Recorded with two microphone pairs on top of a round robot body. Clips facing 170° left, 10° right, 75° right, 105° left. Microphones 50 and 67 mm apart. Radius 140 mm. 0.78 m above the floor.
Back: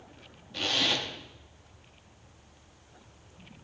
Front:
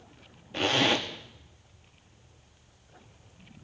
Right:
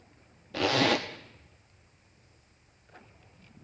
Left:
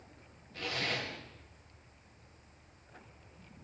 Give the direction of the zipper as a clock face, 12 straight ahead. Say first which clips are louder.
Front 4 dB, right 11 dB; 2 o'clock.